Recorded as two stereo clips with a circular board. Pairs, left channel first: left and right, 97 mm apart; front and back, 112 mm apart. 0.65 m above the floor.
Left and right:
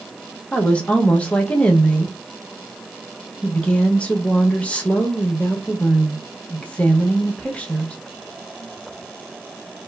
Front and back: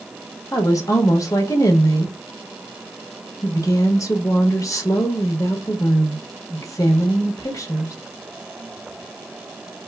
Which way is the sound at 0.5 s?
20° left.